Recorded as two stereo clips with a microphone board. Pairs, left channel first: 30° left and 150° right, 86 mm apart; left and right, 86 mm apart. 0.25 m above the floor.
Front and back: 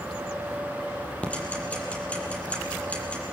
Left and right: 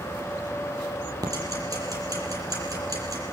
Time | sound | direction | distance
1.2 | ticking | 45° right | 6.5 m